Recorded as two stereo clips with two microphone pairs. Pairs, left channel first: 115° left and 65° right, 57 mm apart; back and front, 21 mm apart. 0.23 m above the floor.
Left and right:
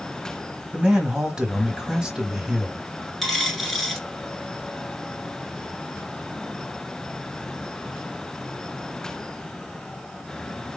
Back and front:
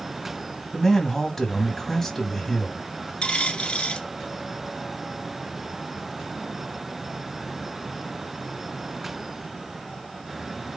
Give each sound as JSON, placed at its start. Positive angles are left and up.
{"t": 0.7, "sound": "a man speaking", "azimuth_deg": -135, "distance_m": 1.1}
{"t": 3.2, "sound": "a dropped coin", "azimuth_deg": -160, "distance_m": 1.5}